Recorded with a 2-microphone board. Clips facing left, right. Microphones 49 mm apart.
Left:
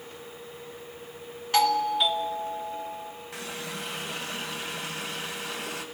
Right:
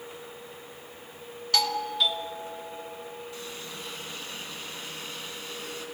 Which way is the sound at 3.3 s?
85° left.